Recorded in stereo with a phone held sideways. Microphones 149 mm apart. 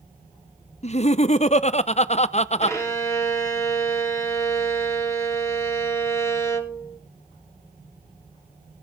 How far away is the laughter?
About 0.6 m.